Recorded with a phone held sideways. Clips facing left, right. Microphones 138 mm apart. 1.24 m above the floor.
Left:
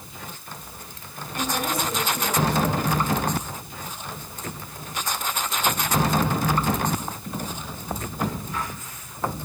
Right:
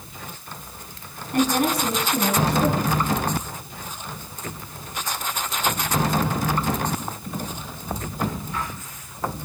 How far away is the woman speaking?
About 6.5 m.